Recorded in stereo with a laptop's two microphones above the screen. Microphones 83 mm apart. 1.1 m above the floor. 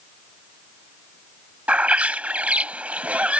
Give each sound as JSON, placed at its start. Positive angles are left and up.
{"t": 1.7, "sound": "a bird", "side_deg": -20}